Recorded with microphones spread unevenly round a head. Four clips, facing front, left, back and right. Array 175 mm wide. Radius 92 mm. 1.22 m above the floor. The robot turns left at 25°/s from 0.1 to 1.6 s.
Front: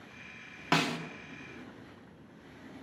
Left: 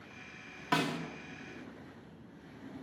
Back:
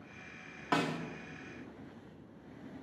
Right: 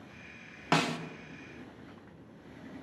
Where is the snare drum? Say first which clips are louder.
Right 3 dB, front 2 dB; 30° right, 1.2 m; by 1.0 s 35° right, 1.2 m.